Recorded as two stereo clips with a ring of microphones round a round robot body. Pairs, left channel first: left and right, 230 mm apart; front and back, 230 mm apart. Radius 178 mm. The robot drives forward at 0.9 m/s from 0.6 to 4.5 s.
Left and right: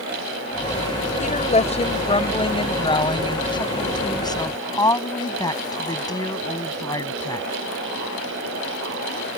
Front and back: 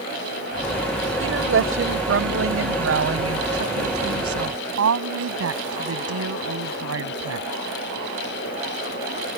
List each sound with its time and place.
1.2 s a woman speaking: 150° left; by 7.5 s 165° left